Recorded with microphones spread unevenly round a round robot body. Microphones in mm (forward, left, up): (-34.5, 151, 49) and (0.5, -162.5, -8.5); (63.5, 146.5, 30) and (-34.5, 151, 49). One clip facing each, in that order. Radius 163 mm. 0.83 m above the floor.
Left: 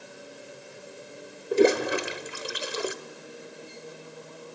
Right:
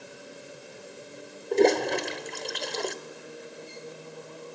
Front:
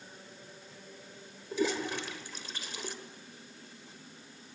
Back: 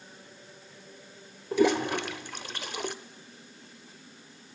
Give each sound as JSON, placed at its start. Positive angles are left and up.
{"t": 1.5, "sound": "a toilet flushing", "azimuth_deg": 175, "distance_m": 0.9}